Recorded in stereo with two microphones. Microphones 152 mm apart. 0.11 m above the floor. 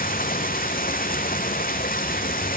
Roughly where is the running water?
Left.